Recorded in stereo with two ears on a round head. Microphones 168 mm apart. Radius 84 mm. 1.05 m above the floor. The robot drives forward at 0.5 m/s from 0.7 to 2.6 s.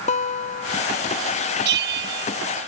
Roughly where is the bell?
Right.